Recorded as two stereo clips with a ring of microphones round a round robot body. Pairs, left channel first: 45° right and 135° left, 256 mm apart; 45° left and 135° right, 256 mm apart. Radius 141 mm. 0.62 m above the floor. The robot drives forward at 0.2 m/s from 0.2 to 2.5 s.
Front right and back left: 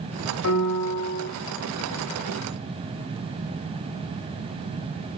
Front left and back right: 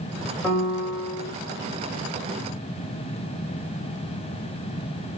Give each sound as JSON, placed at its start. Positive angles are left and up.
{"t": 0.4, "sound": "a piano", "azimuth_deg": -40, "distance_m": 1.2}